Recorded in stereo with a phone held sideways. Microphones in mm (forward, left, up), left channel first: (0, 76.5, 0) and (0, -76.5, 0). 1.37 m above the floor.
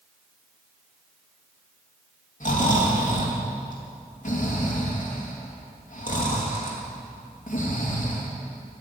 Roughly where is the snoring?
Left.